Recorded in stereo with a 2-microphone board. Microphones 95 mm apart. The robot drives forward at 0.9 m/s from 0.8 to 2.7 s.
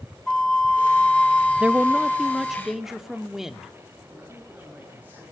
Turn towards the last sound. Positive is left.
turn(degrees=-20)  # may be behind; listen again after turning